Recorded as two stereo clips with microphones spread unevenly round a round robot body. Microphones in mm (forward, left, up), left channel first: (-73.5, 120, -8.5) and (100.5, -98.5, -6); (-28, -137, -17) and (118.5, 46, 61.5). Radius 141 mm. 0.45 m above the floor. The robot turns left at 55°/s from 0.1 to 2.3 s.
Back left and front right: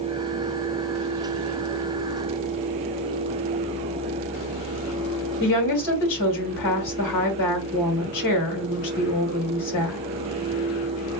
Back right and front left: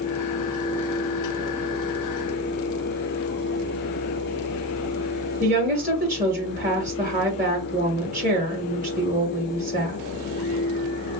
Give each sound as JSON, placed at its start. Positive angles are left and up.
{"t": 5.4, "sound": "a woman speaking", "azimuth_deg": 120, "distance_m": 2.0}